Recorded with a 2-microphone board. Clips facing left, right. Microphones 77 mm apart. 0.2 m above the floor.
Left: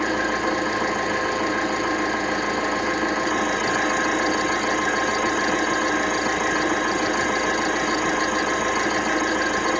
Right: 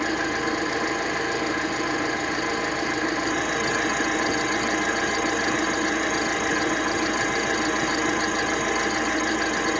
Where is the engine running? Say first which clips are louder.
Left 3 dB; 45° left (ahead or behind), 8 m.